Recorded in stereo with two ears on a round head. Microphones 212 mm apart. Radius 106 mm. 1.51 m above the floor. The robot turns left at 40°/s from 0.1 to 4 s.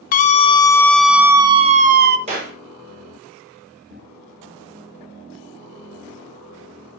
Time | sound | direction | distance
0.1 | a scream | 35° left | 0.8 m
2.3 | a clap | 30° right (ahead or behind) | 5 m